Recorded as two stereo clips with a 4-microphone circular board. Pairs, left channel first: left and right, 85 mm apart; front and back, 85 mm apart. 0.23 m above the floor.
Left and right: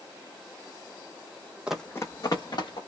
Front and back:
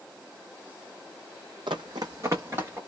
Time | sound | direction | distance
1.7 | running footsteps | 165° right | 0.6 m